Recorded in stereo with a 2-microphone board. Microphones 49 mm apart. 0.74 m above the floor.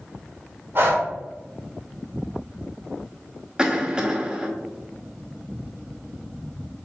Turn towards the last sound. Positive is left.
turn(degrees=-20)  # may be behind; listen again after turning